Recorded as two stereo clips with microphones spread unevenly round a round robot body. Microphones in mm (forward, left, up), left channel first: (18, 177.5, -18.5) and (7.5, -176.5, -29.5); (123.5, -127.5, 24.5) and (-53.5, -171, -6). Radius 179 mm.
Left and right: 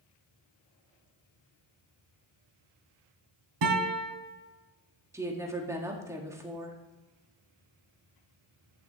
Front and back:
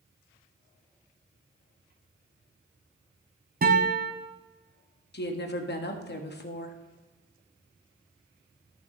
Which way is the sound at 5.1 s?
10° right.